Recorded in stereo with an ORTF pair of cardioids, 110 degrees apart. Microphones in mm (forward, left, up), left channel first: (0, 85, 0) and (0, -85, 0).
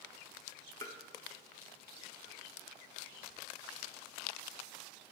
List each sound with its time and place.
0.8 s tapping: 20° left, 0.9 m